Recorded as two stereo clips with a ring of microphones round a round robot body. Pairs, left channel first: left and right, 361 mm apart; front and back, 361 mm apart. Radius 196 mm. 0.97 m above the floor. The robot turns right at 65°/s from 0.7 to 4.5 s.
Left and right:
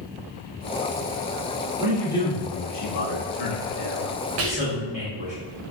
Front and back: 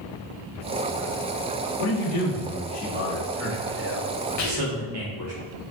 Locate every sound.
1.8 s a man speaking: 10° right, 1.2 m; by 5.3 s 165° left, 1.2 m
4.4 s whispering: 45° right, 0.8 m; by 4.8 s 35° right, 0.8 m